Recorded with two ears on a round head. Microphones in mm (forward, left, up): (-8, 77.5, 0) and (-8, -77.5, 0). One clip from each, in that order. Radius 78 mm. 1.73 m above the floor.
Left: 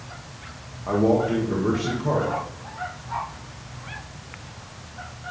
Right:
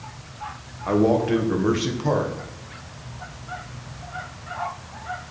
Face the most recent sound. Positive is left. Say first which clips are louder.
# right 1 dB
turn(degrees=-70)  # may be behind; listen again after turning